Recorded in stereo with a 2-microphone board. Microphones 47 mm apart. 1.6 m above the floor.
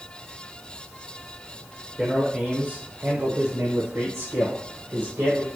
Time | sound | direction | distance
2.0 | a man speaking | 15° right (ahead or behind) | 1.3 m